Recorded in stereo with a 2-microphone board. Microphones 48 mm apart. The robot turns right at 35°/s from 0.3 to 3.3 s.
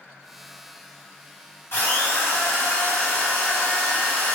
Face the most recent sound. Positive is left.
turn(degrees=120)